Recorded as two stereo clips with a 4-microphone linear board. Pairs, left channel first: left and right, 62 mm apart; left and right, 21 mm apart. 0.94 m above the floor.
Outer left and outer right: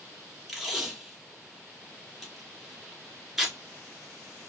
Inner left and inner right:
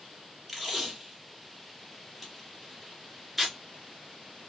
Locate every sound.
0.5 s tape being pulled: 5° right (ahead or behind), 2 m